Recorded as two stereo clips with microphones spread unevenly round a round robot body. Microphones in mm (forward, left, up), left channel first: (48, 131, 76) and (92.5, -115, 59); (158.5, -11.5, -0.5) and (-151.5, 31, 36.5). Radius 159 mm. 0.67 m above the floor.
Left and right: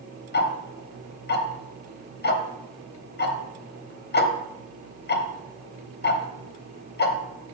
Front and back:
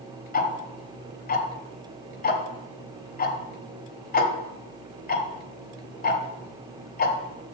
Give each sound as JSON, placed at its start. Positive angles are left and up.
{"t": 0.3, "sound": "ticking", "azimuth_deg": 50, "distance_m": 1.0}